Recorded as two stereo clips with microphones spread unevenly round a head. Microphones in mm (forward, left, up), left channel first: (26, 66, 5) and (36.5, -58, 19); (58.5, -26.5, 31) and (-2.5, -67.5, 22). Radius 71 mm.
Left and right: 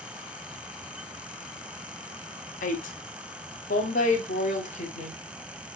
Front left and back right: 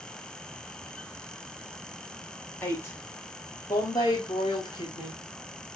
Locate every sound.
2.6 s a woman speaking: 105° left, 2.0 m; by 5.2 s 75° left, 3.5 m